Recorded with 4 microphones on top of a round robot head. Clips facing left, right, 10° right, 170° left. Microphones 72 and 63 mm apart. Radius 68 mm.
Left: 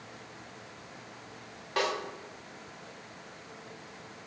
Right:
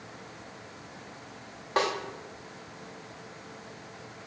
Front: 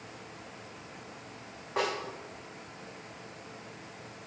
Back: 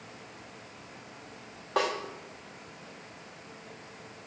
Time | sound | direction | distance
1.8 | a snare drum | 140° right | 0.9 m